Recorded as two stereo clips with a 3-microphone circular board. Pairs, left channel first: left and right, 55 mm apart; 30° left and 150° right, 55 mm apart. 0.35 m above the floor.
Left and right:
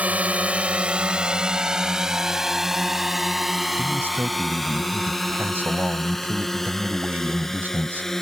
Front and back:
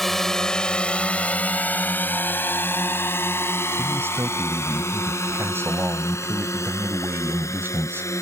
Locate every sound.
0.0 s a drone: 55° right; by 8.2 s 10° left
3.8 s a man speaking: 130° right